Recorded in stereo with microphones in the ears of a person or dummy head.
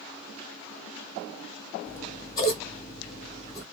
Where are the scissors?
25° left (ahead or behind), 1.3 m.